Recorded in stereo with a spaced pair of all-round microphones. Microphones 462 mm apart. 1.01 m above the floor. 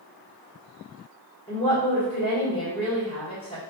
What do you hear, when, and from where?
1.5 s a woman speaking: 10° left (ahead or behind), 1.2 m